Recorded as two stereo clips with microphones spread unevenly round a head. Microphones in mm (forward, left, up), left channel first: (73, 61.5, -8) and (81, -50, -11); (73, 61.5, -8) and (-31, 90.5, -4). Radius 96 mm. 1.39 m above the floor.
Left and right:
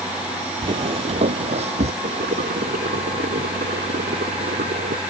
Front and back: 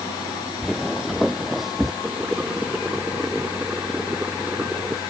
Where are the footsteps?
110° right.